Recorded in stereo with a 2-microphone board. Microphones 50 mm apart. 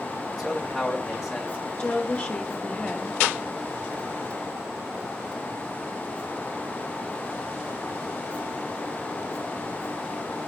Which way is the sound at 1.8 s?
25° left (ahead or behind).